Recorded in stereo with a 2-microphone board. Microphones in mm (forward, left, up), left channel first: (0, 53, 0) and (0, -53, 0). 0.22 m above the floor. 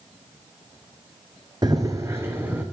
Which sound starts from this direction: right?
Running footsteps, at 1.6 s.